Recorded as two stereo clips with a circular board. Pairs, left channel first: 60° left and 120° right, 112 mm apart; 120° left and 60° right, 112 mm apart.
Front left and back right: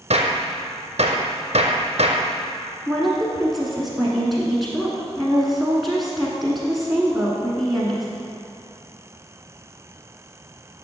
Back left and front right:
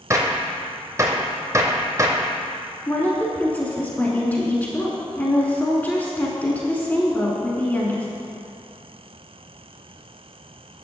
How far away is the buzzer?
No buzzer in this recording.